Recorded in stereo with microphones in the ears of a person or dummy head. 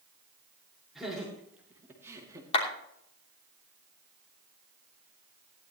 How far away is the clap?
About 3 m.